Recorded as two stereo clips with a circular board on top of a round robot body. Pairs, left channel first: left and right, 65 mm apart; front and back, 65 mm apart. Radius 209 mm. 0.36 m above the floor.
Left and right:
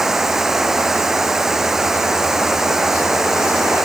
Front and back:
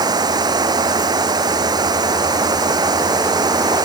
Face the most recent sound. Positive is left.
turn(degrees=-175)